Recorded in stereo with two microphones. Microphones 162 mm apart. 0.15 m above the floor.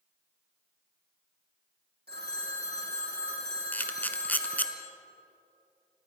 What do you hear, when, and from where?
2.1 s a phone ringing: 80° right, 4 m
3.7 s a camera shutter: 10° left (ahead or behind), 1.1 m